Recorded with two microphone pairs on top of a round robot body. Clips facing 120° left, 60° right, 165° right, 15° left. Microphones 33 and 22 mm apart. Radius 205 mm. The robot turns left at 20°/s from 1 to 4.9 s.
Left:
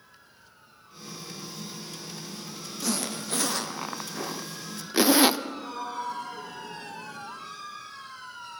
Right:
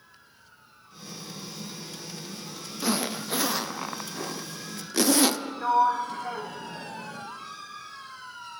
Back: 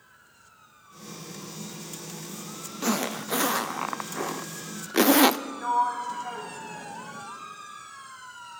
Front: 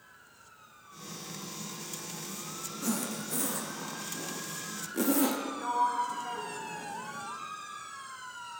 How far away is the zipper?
About 0.8 m.